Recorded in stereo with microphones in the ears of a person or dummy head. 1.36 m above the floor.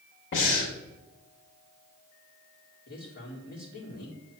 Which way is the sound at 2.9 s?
50° left (ahead or behind).